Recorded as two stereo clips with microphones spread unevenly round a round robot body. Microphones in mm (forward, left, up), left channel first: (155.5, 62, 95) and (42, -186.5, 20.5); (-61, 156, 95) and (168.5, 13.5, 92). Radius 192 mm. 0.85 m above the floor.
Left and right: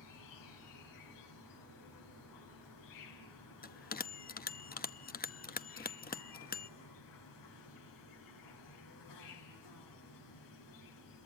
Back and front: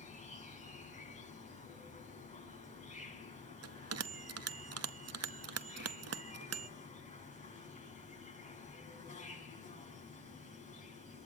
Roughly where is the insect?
Left.